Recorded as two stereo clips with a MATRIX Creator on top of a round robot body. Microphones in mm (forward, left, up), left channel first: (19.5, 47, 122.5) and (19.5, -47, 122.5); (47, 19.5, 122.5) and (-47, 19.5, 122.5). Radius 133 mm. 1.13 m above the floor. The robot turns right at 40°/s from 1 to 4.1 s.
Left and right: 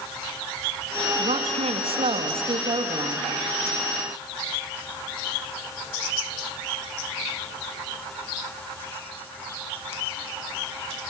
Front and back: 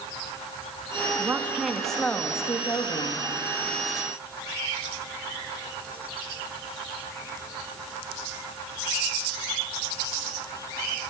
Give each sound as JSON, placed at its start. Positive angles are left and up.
{"t": 1.2, "sound": "a woman speaking", "azimuth_deg": -115, "distance_m": 2.0}